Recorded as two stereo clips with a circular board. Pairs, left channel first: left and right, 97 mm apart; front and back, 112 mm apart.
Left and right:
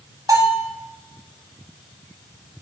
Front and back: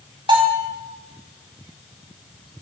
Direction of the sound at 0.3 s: 140° right.